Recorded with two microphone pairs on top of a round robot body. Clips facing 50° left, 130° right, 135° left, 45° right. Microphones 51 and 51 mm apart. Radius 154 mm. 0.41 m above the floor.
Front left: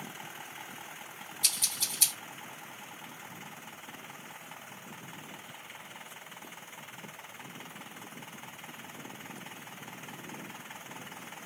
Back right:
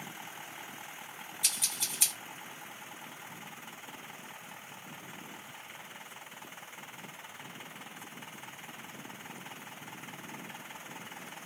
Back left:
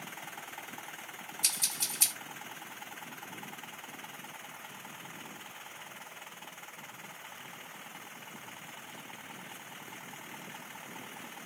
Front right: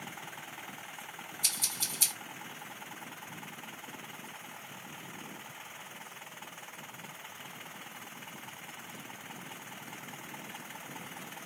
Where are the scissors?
150° left, 1.8 m.